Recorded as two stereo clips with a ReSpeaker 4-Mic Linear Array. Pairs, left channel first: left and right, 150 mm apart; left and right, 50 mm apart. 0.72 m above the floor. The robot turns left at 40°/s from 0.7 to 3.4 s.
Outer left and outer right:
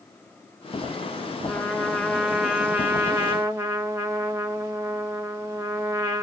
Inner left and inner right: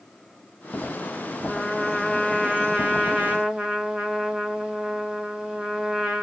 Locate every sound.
1.4 s a trumpet: 10° left (ahead or behind), 1.0 m; by 6.2 s 20° right (ahead or behind), 1.0 m